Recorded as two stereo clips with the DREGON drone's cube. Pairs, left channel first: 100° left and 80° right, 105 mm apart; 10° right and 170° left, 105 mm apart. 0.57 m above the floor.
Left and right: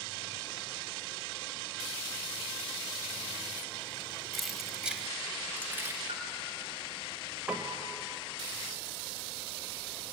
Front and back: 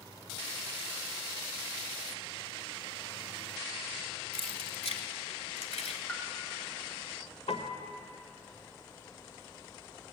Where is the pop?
85° right, 3 m.